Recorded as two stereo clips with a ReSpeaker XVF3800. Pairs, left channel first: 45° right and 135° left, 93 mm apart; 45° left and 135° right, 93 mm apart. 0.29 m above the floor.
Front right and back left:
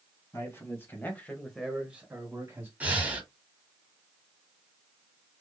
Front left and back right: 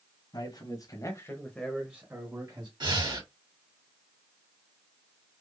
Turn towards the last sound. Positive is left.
turn(degrees=-155)